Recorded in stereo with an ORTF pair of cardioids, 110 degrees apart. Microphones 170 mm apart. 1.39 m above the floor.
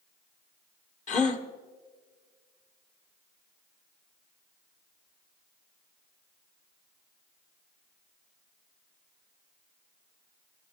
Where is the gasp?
45° left, 1.6 m.